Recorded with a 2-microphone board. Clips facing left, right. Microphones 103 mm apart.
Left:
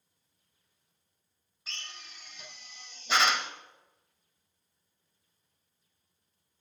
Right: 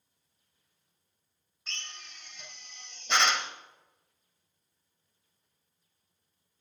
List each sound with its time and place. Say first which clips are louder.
1.7 s a drill: right 1 dB; 5° left (ahead or behind), 0.8 m